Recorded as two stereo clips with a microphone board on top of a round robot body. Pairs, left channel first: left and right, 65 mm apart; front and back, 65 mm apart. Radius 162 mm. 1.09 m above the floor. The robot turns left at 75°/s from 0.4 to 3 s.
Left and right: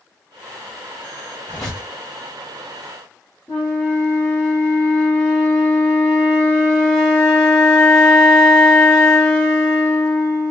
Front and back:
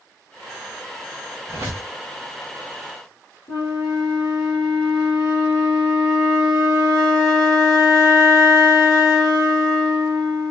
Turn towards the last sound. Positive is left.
turn(degrees=20)